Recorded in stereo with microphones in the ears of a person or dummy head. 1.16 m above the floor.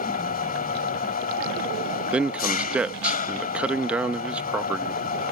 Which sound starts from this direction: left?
An engine running, at 0.0 s.